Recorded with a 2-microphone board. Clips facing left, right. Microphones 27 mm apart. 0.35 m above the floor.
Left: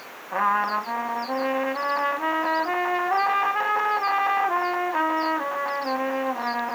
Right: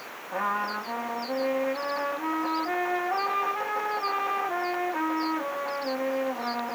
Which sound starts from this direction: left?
A trumpet, at 0.3 s.